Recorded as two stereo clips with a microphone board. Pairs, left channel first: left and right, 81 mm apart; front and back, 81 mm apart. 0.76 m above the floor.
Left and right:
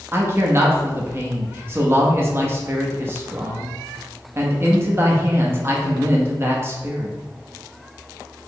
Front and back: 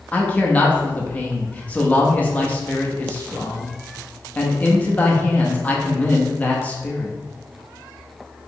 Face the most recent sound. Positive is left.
turn(degrees=-60)